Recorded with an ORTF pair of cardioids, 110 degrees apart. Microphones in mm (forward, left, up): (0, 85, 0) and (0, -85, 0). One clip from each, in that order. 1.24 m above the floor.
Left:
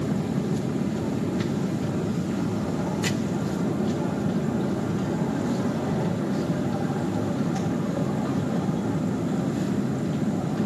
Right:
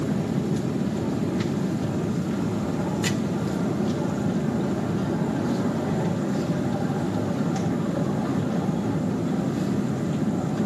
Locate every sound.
0.0 s a machine running: 5° right, 0.8 m